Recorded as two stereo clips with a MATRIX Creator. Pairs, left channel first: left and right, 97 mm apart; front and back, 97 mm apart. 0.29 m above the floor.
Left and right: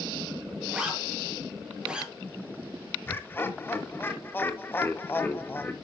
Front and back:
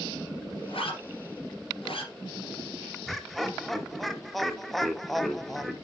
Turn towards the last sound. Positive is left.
turn(degrees=85)